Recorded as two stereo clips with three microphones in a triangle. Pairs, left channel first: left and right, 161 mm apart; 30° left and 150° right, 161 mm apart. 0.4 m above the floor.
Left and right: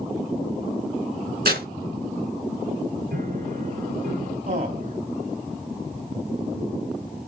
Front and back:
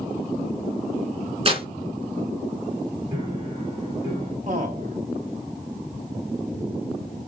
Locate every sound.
1.4 s tearing paper: 100° right, 2 m
3.1 s a piano: 95° right, 6 m
4.5 s a man speaking: 115° right, 3 m